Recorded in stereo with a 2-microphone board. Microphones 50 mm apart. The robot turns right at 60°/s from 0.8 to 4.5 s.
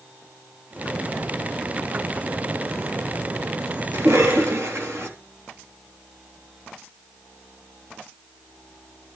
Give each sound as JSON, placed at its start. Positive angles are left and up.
{"t": 3.9, "sound": "a cough", "azimuth_deg": -105, "distance_m": 3.5}